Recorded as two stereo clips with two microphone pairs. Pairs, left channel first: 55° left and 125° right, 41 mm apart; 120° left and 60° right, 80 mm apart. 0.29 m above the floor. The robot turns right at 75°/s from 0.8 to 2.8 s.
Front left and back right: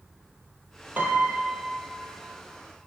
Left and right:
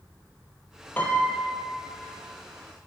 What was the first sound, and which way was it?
A piano, 175° right.